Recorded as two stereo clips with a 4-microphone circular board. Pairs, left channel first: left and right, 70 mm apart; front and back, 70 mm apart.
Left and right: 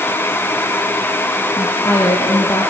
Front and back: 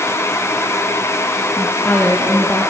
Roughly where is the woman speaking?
Left.